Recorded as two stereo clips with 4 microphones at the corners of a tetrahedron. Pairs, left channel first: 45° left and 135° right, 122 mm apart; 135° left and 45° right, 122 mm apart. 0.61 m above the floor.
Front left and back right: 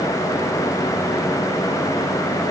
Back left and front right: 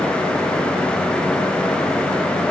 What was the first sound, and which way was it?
Only background noise.